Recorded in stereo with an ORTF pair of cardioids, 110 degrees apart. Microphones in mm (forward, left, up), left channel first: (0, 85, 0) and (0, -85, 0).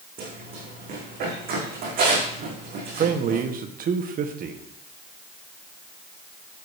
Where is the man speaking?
55° right, 1.6 m.